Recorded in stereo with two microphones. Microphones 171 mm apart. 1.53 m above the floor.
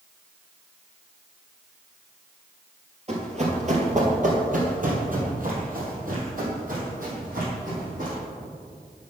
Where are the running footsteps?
40° right (ahead or behind), 2 m; by 8.2 s 55° right (ahead or behind), 4.5 m.